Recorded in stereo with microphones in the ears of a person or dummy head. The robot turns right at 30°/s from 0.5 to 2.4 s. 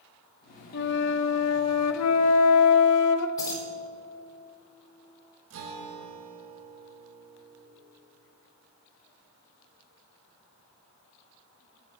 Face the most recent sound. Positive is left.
turn(degrees=-65)  # may be behind; listen again after turning